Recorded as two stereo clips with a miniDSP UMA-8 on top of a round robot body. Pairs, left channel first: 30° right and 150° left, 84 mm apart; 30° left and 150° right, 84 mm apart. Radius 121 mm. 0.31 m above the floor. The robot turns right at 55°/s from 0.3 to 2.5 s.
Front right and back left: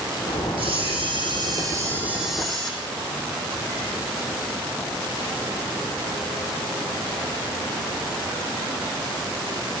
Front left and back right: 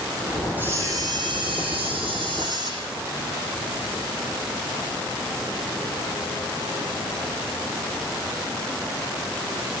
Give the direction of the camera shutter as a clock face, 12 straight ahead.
7 o'clock.